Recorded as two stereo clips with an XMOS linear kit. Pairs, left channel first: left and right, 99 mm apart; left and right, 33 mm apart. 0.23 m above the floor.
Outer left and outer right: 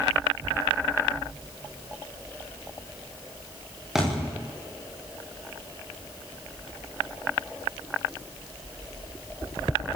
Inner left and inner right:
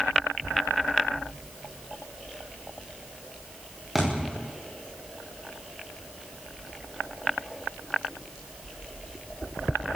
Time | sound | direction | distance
4.0 | a thud | 5° right (ahead or behind) | 10 m